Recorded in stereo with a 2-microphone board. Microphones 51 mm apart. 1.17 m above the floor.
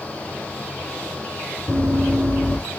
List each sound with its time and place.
1.7 s running footsteps: 60° right (ahead or behind), 2 m